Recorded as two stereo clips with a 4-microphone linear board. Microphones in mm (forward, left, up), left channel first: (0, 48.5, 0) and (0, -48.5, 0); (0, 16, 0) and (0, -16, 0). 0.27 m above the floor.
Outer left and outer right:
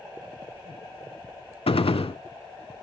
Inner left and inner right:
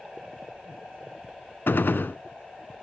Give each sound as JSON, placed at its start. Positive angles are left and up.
{"t": 1.7, "sound": "a gunshot", "side_deg": 85, "distance_m": 0.6}